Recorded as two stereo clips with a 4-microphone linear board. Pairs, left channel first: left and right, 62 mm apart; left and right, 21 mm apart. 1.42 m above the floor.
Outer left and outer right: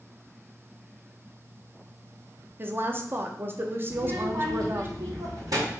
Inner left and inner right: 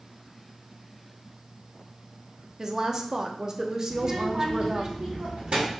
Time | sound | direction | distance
2.6 | a woman speaking | 35° right (ahead or behind) | 0.7 m
3.9 | a child speaking | 80° right | 2 m